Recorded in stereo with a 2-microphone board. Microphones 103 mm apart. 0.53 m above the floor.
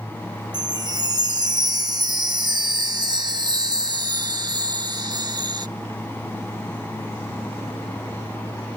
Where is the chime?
45° right (ahead or behind).